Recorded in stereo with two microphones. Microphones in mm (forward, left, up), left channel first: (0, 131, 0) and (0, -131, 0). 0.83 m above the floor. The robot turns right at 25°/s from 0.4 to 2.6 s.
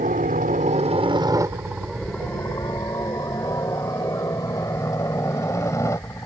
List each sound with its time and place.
0.0 s a helicopter: 30° right (ahead or behind); by 6.3 s 10° left (ahead or behind)